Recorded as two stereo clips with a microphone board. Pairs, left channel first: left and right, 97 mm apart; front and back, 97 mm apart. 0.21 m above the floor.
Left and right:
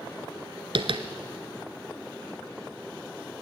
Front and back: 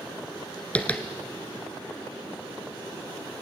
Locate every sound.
0.8 s tapping: 75° right, 1.3 m